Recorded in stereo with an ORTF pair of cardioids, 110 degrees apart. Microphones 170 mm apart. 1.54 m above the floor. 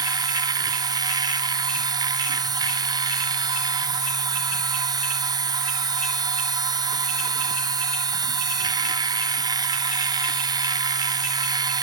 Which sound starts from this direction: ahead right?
A machine running, at 0.0 s.